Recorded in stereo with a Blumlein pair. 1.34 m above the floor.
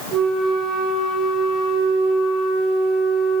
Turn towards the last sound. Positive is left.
turn(degrees=-5)